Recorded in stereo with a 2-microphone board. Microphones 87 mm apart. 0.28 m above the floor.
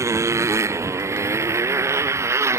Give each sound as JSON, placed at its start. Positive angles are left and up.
{"t": 0.0, "sound": "a motorcycle", "side_deg": -35}